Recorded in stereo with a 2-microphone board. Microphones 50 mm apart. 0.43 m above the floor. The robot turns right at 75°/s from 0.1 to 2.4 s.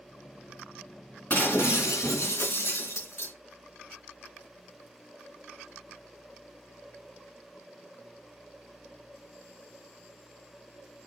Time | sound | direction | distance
1.3 | breaking glass | 35° left | 3 m